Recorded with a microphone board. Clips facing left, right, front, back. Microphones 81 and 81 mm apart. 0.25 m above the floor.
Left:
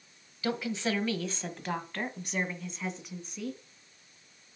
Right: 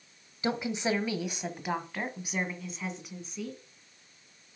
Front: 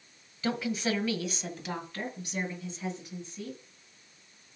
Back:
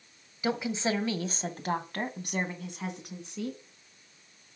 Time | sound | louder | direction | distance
0.4 | a woman speaking | right 1 dB, back 1 dB | 120° right | 1.2 m